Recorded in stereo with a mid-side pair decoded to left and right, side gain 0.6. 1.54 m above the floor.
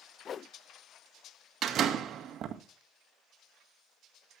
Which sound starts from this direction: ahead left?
A whoosh, at 0.2 s.